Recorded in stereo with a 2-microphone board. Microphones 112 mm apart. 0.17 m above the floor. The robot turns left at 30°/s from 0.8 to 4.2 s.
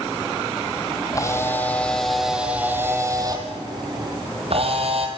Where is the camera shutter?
30° left, 3.5 m; by 5.1 s 60° right, 3.5 m.